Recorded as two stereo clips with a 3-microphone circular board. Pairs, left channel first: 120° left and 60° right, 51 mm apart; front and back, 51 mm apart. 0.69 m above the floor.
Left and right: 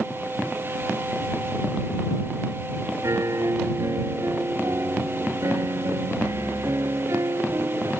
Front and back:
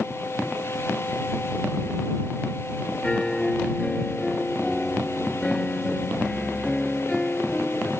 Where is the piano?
80° right.